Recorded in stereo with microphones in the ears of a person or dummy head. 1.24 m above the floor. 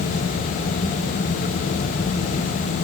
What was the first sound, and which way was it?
Only background noise.